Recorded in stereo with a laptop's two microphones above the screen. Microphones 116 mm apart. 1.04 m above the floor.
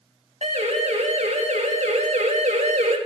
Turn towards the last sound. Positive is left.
turn(degrees=-85)